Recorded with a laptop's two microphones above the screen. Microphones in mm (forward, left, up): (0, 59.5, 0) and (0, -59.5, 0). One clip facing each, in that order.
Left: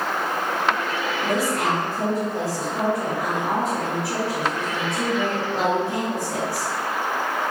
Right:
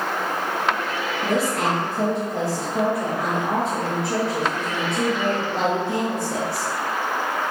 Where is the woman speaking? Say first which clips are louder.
Right 1 dB; 60° right (ahead or behind), 1.2 m.